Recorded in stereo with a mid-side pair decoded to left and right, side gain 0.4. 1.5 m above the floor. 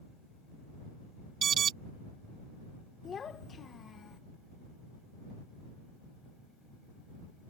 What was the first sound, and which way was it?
An alarm, 55° right.